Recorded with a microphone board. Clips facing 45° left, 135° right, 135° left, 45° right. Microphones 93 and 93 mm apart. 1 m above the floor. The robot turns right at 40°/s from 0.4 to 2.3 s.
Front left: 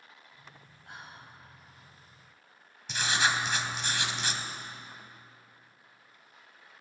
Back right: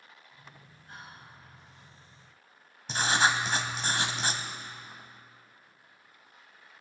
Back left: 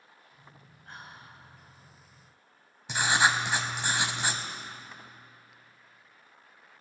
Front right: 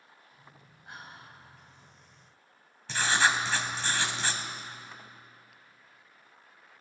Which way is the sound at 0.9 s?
30° left.